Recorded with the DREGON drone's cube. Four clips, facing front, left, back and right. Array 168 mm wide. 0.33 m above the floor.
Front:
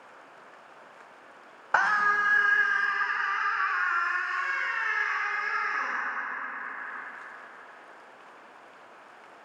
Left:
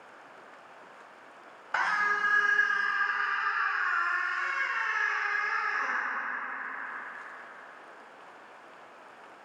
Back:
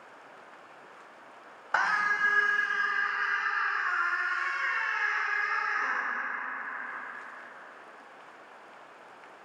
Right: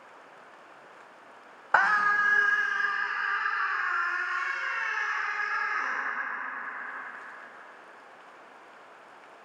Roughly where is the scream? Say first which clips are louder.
Right 5 dB, front 3 dB; ahead right.